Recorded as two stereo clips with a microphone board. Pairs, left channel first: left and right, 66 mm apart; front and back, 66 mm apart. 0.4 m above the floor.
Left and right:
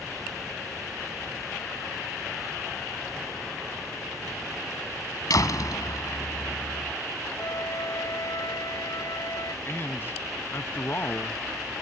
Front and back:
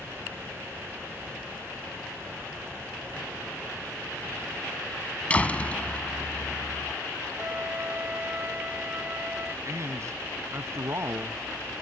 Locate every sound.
5.3 s a door slam: 70° left
7.4 s a flute: 115° left
9.7 s a man speaking: 140° left